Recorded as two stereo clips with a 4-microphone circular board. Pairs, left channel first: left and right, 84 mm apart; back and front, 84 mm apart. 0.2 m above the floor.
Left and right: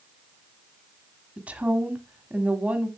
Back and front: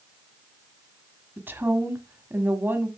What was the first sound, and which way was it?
A woman speaking, 35° right.